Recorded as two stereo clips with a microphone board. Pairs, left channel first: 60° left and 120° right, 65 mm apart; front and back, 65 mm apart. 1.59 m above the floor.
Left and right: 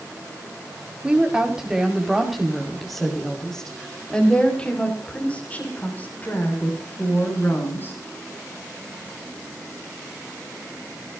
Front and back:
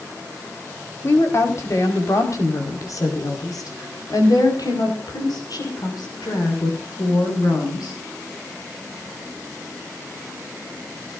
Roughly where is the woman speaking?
Ahead right.